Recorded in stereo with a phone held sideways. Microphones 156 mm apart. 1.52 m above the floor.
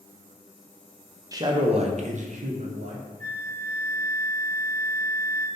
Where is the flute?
60° right (ahead or behind), 0.8 m.